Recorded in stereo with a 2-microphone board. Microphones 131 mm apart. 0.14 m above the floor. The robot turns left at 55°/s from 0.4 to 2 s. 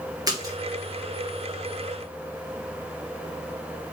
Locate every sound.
0.3 s a splash: 30° right (ahead or behind), 2.5 m; by 0.6 s 20° right (ahead or behind), 2.5 m